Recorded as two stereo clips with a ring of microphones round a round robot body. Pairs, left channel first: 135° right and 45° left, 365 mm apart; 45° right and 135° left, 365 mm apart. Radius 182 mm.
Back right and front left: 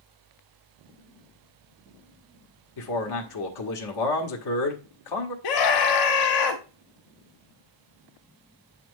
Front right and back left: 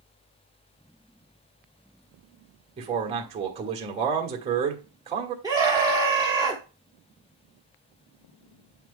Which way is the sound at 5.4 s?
145° right.